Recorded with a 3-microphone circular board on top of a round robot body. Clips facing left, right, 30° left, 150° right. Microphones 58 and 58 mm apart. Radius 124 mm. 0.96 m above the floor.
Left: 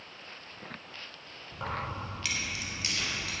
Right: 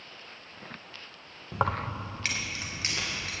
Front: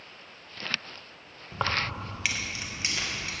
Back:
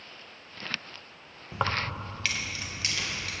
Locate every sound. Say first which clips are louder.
1.5 s keys jangling: right 6 dB, even; 70° right, 0.6 m; by 3.3 s 35° right, 2.5 m